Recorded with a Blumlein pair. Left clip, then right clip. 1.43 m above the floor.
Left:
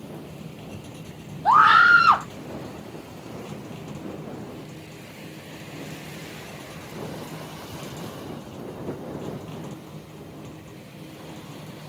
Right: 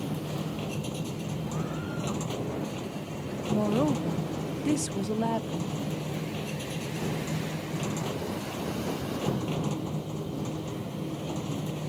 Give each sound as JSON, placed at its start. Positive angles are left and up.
{"t": 0.0, "sound": "a machine running", "azimuth_deg": -20}
{"t": 1.4, "sound": "a scream", "azimuth_deg": 45}
{"t": 3.5, "sound": "a woman speaking", "azimuth_deg": -45}